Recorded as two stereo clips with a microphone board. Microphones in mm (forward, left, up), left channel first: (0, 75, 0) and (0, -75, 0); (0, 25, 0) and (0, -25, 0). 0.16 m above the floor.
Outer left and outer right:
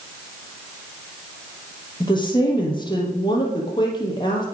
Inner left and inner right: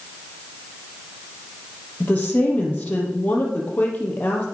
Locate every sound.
2.0 s a woman speaking: 30° left (ahead or behind), 4.5 m